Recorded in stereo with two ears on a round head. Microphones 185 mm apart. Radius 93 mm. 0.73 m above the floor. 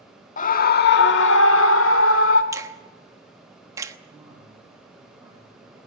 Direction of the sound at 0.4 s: 40° left (ahead or behind).